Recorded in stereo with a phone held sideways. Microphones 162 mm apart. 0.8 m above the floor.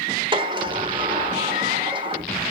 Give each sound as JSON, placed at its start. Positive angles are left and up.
{"t": 0.3, "sound": "a sliding door", "side_deg": -30, "distance_m": 1.2}